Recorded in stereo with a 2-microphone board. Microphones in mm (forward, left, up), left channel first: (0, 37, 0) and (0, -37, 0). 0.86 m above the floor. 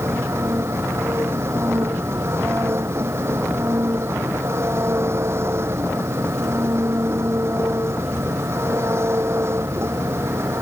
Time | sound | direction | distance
0.0 | an engine running | 40° right (ahead or behind) | ?